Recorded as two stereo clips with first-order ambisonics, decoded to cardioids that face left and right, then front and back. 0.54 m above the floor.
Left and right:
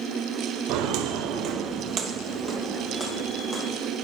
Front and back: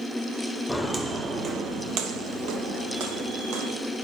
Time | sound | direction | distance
0.7 | footsteps | 95° right | 1.1 m